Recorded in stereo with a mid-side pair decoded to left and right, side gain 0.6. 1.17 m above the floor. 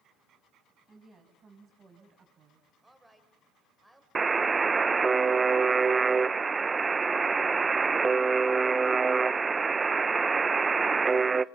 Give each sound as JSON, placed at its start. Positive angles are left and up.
{"t": 0.9, "sound": "a woman speaking", "azimuth_deg": -30, "distance_m": 8.0}
{"t": 2.8, "sound": "a woman speaking", "azimuth_deg": -5, "distance_m": 4.5}
{"t": 4.2, "sound": "a buzzer", "azimuth_deg": -25, "distance_m": 0.7}